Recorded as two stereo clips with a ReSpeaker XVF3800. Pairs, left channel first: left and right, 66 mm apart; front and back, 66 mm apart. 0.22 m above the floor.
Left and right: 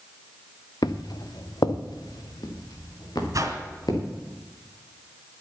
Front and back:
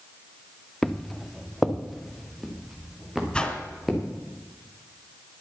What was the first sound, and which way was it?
Footsteps, 85° left.